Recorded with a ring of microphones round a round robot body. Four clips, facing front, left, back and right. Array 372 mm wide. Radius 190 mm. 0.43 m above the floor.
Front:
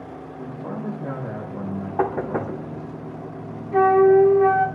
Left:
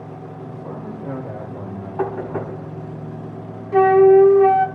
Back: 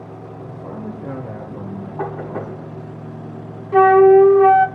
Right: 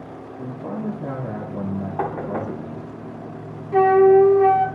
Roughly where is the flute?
Behind.